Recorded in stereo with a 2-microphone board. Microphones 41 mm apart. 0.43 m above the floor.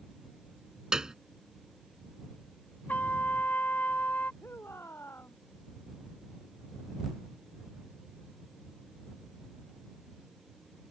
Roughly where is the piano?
Centre.